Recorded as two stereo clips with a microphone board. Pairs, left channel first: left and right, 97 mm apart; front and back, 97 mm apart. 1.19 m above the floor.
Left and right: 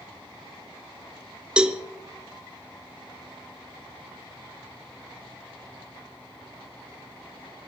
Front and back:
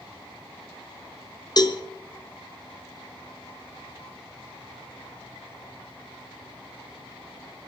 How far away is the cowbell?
About 1.0 m.